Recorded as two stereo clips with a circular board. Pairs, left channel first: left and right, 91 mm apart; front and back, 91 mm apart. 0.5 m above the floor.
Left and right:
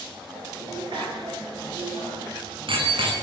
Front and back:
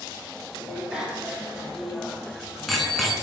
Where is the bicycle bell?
100° right, 5 m; by 3.1 s 85° right, 3.5 m.